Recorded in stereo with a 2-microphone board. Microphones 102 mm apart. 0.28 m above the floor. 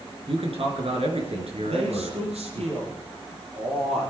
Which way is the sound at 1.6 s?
80° right.